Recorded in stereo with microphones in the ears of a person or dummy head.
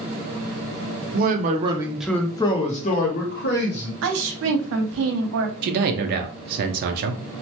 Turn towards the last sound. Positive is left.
turn(degrees=-55)  # may be behind; listen again after turning